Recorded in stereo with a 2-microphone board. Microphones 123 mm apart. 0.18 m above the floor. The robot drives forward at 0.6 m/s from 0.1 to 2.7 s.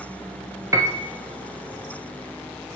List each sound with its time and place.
0.7 s a piano: 25° right (ahead or behind), 1.1 m; by 1.1 s 20° right (ahead or behind), 1.3 m